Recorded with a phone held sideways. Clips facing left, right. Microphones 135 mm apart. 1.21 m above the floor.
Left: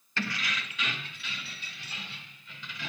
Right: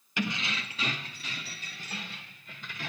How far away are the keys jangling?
About 0.8 m.